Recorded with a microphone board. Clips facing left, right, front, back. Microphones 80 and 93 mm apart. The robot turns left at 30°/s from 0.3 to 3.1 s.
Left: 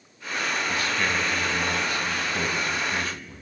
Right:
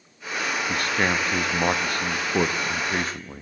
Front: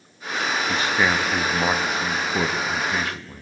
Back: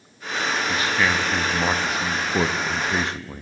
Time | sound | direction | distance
0.7 | a man speaking | 55° right | 0.7 m